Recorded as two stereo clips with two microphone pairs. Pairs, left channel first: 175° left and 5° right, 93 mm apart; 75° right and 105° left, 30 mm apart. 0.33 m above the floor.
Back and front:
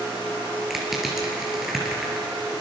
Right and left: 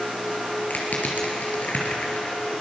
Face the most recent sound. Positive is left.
turn(degrees=-90)